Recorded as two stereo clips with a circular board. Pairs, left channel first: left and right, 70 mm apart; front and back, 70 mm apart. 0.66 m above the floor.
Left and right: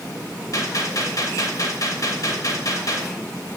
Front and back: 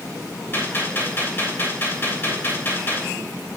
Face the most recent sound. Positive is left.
turn(degrees=55)